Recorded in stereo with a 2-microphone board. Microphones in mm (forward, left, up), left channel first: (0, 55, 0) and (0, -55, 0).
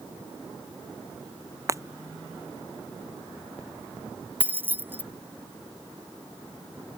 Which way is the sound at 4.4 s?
20° right (ahead or behind).